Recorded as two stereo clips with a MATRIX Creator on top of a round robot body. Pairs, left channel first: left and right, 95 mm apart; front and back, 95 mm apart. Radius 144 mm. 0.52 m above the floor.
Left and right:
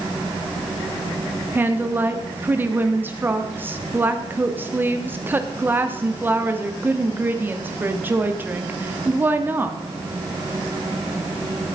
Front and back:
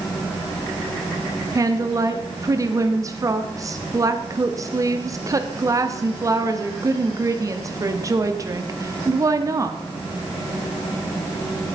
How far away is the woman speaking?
About 1.5 m.